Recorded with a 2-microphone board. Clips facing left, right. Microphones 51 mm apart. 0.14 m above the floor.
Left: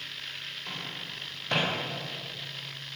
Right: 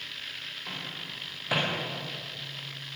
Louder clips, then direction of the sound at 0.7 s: Even; 5° right (ahead or behind).